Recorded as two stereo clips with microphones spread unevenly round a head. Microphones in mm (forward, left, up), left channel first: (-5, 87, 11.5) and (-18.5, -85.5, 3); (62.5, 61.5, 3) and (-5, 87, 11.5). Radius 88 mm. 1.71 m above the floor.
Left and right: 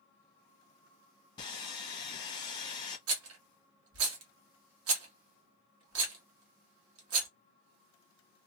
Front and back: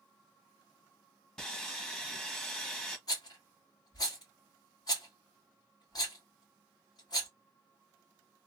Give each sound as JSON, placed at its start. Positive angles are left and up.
{"t": 1.4, "sound": "sawing", "azimuth_deg": 75, "distance_m": 1.1}
{"t": 3.1, "sound": "a rattle", "azimuth_deg": -90, "distance_m": 1.2}